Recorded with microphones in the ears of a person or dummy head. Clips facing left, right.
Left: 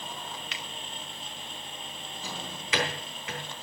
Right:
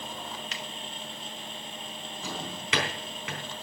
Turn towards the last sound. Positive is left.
turn(degrees=-65)  # may be behind; listen again after turning